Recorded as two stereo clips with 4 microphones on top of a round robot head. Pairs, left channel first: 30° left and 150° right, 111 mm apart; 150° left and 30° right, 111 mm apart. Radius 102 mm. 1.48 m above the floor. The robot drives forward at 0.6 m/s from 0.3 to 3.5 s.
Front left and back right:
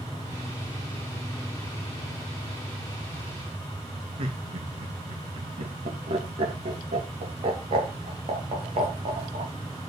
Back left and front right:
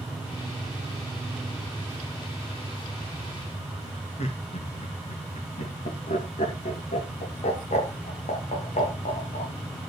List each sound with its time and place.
4.2 s laughter: 175° left, 3 m